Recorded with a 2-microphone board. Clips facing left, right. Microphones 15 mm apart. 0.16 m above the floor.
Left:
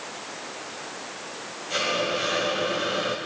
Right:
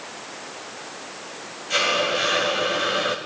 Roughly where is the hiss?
Right.